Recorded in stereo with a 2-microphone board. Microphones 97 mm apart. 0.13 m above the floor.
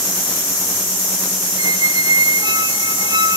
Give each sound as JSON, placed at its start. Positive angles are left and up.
{"t": 1.6, "sound": "a squeak", "side_deg": -55}